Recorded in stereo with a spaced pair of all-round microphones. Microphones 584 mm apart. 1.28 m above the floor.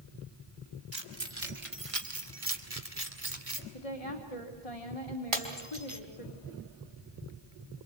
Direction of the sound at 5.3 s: 60° right (ahead or behind).